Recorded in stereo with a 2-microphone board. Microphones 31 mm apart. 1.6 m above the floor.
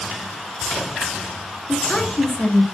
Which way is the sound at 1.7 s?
25° left (ahead or behind).